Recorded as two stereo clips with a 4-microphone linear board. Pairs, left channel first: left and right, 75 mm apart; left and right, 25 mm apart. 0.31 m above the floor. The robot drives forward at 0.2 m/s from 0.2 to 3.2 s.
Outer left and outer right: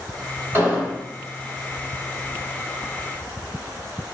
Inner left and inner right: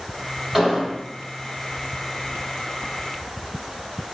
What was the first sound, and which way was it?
An explosion, 30° right (ahead or behind).